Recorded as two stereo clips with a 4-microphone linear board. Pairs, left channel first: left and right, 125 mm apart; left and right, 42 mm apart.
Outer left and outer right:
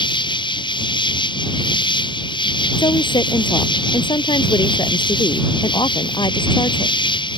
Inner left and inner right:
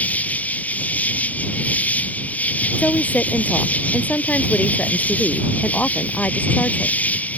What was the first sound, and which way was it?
An insect, 40° left (ahead or behind).